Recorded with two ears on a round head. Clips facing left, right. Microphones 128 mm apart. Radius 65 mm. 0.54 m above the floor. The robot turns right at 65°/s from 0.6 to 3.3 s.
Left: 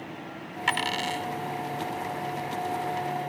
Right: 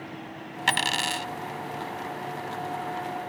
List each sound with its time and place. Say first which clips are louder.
0.7 s a dropped coin: even; 135° right; by 1.3 s 95° right